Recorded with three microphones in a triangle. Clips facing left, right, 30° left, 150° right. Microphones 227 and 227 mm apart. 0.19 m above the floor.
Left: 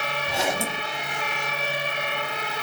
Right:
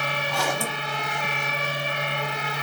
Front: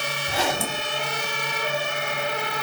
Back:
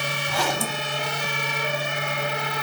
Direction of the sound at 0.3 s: 55° left.